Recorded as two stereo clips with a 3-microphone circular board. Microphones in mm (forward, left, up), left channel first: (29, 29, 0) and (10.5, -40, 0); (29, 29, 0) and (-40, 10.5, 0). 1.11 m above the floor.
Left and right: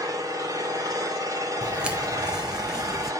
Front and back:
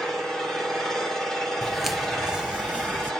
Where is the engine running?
70° right, 3 m.